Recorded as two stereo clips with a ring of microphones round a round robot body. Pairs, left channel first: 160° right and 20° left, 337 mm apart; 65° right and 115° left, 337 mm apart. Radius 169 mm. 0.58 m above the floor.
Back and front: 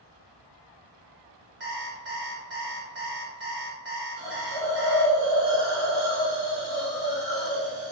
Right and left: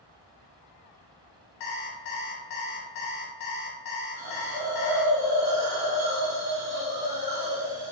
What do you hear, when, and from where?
1.6 s an alarm clock: 35° right, 1.2 m
4.2 s a hiss: 80° left, 1.8 m